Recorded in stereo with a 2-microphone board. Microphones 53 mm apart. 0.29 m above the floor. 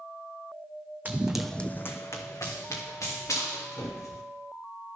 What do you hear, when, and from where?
1.1 s running footsteps: 35° right (ahead or behind), 0.8 m; by 4.2 s 85° left, 3.5 m